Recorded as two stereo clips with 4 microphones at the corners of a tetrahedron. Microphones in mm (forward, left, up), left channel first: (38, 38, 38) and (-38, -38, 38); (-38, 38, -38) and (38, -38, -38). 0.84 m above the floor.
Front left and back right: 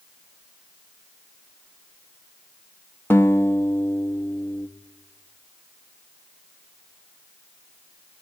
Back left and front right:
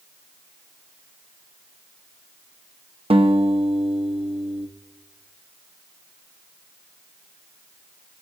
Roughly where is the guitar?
Ahead right.